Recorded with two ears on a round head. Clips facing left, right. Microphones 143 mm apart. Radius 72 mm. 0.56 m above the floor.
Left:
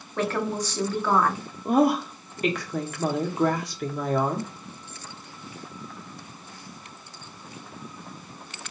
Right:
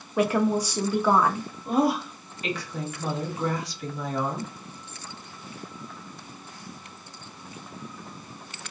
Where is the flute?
No flute in this recording.